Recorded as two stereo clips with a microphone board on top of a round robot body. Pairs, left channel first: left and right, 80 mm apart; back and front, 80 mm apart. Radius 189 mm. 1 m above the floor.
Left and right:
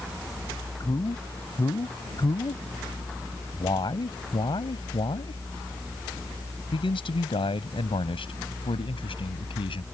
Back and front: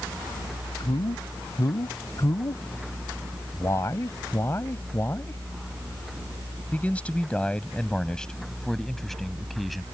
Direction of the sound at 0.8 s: 140° left.